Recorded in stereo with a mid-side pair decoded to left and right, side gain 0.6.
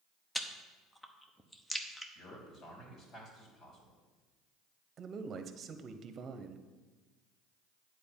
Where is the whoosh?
No whoosh in this recording.